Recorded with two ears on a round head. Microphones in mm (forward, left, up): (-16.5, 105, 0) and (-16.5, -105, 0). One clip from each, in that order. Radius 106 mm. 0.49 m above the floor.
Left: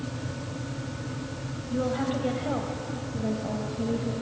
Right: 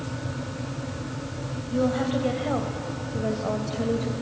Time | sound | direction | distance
1.7 | a woman speaking | centre (ahead or behind) | 2.5 m